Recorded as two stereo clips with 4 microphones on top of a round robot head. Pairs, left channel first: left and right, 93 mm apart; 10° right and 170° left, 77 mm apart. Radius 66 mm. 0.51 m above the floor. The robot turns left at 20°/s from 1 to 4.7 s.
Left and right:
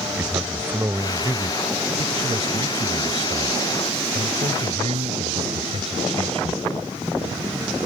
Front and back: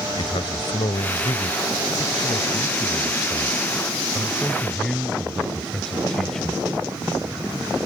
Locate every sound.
0.2 s a man speaking: 20° right; by 6.6 s 95° right